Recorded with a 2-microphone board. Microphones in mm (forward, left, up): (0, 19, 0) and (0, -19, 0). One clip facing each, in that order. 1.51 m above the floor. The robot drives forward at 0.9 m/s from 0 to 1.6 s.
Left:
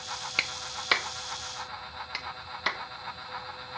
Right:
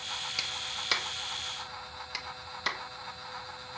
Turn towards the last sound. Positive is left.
turn(degrees=15)  # may be behind; listen again after turning